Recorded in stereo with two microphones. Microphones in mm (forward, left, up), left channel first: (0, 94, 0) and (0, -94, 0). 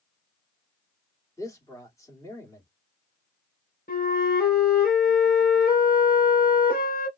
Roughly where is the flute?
Left.